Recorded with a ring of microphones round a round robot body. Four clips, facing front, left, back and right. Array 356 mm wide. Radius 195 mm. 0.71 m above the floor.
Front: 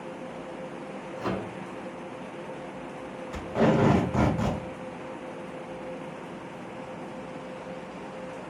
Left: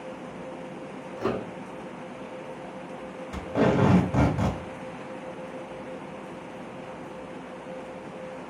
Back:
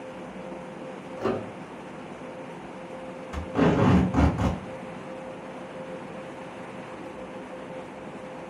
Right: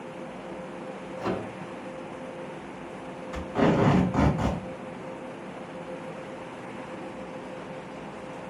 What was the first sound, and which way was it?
A microwave, 130° left.